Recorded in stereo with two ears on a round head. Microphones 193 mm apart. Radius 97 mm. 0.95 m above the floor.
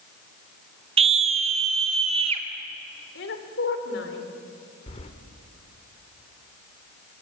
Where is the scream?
25° right (ahead or behind), 0.8 m; by 2.5 s 30° right (ahead or behind), 3 m.